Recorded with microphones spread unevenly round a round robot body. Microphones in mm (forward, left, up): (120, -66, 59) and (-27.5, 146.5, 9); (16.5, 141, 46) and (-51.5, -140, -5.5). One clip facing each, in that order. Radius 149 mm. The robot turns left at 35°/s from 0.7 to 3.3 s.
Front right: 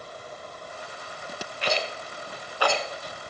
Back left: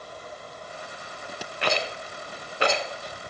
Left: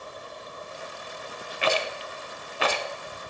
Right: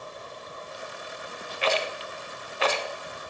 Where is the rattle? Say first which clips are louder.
Back left 1 dB, even; 90° left, 1.4 m; by 3.3 s 30° left, 1.4 m.